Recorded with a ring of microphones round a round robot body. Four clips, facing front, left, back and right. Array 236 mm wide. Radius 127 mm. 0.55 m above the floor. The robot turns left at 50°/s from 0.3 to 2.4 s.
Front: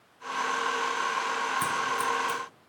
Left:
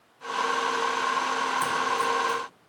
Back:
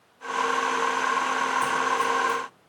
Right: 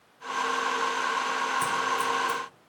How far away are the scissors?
About 0.5 m.